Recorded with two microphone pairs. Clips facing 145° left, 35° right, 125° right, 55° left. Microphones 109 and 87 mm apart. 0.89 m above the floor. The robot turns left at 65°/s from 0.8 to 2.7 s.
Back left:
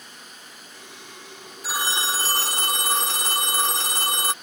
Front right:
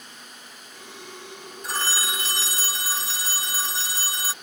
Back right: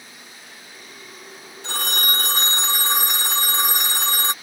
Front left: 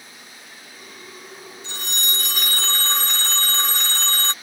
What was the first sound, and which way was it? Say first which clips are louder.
A phone ringing: back left 2 dB, back right 6 dB; 130° right.